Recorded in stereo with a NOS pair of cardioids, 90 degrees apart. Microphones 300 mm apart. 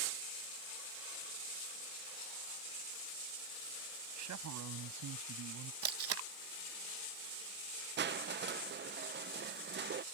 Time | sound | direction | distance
4.2 | a man speaking | 65° right | ?
5.8 | tape being pulled | 50° right | ?
8.0 | crushing | 35° right | ?